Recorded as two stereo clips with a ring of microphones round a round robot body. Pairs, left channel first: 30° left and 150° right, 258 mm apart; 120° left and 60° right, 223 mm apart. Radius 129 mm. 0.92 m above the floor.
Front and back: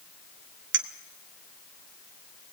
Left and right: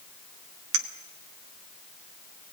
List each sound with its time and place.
0.7 s a clink: 100° right, 1.2 m